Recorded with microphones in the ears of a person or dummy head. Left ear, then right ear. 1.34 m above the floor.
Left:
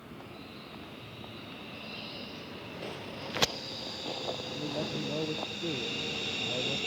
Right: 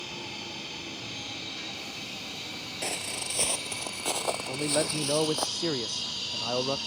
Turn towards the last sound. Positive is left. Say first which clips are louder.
# right 7 dB
turn(degrees=-65)  # may be behind; listen again after turning